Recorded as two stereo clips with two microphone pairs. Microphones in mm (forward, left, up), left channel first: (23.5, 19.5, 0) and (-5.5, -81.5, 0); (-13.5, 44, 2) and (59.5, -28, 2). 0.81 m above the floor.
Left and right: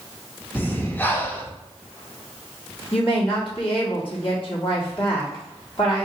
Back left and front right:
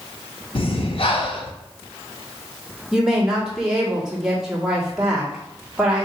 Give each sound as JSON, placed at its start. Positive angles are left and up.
{"t": 0.6, "sound": "breathing", "azimuth_deg": 145, "distance_m": 0.6}
{"t": 2.9, "sound": "a woman speaking", "azimuth_deg": 40, "distance_m": 1.5}